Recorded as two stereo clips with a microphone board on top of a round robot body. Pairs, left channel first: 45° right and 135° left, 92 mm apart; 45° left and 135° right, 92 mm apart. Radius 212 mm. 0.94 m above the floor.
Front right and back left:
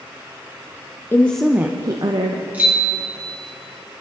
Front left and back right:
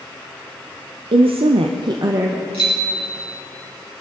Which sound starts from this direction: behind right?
A bicycle bell, at 2.5 s.